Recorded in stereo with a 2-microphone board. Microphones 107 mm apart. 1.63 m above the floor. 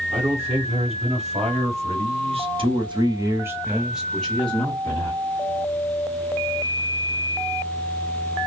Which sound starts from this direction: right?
A man speaking, at 0.1 s.